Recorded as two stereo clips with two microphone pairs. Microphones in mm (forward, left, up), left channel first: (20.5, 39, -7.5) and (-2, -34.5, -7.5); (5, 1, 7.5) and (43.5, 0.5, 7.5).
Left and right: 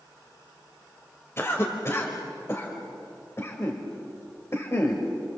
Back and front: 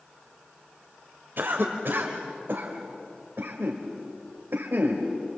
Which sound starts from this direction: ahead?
A cough, at 1.4 s.